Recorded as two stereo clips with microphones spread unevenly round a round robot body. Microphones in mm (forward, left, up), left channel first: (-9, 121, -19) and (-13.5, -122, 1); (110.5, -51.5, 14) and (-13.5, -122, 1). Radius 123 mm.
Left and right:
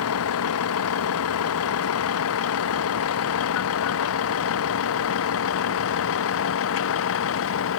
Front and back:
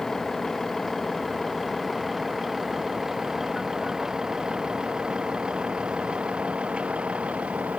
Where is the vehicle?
120° left; by 7.8 s 125° left.